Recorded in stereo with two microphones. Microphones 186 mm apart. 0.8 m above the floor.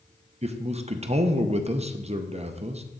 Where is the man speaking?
35° right (ahead or behind), 0.6 m.